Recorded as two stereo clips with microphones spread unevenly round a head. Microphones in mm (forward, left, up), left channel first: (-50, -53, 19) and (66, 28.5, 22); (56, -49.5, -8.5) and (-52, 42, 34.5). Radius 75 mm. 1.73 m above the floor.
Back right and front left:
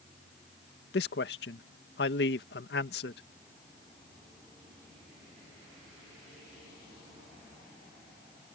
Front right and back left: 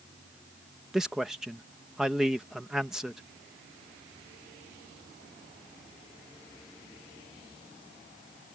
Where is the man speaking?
135° right.